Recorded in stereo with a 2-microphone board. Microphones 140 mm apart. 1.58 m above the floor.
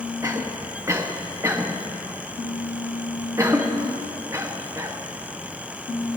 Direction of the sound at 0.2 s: 20° right (ahead or behind).